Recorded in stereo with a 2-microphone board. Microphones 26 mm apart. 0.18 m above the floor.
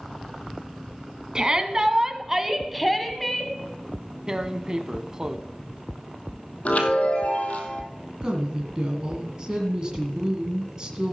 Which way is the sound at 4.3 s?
25° right (ahead or behind).